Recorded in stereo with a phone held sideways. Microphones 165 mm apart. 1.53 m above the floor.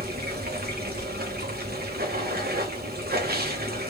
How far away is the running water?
About 1.1 m.